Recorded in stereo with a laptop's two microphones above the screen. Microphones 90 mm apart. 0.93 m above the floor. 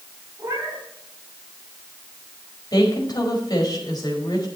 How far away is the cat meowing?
About 5 m.